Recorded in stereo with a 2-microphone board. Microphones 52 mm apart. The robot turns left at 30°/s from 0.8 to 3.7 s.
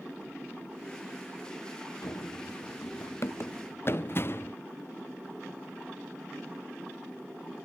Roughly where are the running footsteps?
Left.